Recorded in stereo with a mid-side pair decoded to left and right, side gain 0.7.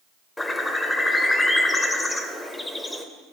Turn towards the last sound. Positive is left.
turn(degrees=15)